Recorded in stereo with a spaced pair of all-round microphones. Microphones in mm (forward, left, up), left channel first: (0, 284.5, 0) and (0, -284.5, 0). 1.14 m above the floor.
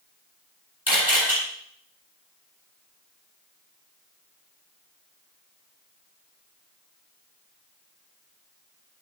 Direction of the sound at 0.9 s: 25° left (ahead or behind).